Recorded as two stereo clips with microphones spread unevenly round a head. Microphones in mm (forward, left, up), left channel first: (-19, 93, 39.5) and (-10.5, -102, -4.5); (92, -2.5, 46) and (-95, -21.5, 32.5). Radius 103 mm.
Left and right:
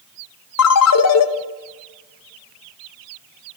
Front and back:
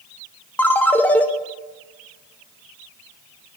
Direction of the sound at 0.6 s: 90° left.